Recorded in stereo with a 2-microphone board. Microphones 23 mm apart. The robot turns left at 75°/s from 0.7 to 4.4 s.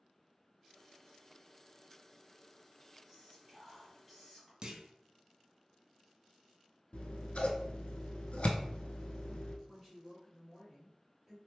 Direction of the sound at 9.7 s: 5° right (ahead or behind).